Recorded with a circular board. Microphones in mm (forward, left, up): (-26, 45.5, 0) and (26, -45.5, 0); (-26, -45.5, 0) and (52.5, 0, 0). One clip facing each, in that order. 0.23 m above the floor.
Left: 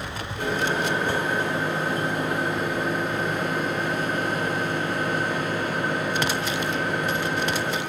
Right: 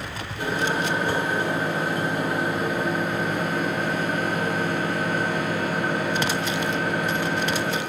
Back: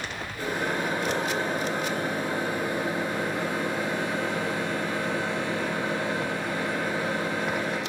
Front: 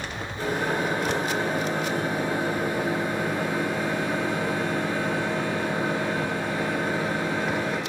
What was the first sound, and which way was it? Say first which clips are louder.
A microwave: even, front 3 dB; 5° left.